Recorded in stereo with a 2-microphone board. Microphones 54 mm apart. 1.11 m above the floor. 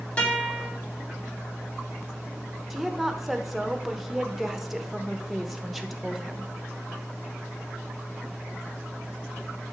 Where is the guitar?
25° left (ahead or behind), 3 m.